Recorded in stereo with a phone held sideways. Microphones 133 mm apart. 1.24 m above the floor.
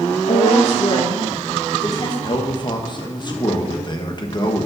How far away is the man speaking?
About 1.4 m.